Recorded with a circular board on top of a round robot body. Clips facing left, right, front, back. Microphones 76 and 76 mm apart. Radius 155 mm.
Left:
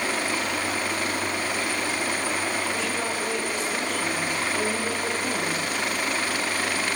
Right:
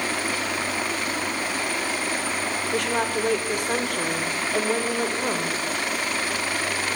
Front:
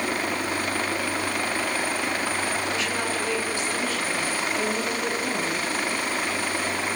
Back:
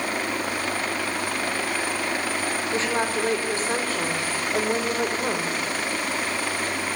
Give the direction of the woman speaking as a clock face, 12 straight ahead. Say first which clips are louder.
Right 4 dB, back 3 dB; 4 o'clock.